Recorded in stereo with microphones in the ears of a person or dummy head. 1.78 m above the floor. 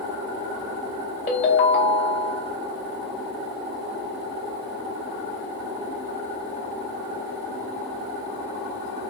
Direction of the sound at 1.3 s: 30° left (ahead or behind).